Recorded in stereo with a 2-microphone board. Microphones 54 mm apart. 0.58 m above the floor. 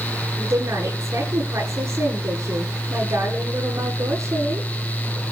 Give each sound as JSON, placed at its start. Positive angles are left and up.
{"t": 0.4, "sound": "a woman speaking", "side_deg": -65, "distance_m": 9.5}